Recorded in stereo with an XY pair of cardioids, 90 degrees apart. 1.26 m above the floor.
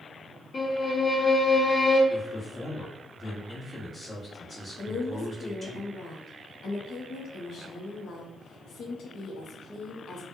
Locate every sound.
0.5 s a violin: 50° left, 1.4 m
2.1 s a man speaking: 45° left, 1.4 m
4.8 s a woman speaking: 65° left, 0.9 m